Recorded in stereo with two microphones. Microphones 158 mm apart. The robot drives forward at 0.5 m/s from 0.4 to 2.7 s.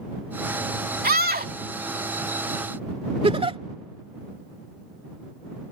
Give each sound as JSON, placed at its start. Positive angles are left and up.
{"t": 1.0, "sound": "a scream", "side_deg": -75}
{"t": 3.2, "sound": "a giggle", "side_deg": -40}